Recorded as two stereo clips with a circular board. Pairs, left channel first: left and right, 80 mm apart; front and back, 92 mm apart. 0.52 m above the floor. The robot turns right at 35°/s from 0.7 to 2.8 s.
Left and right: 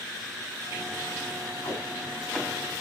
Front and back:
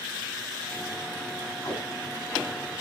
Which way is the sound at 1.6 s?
45° left.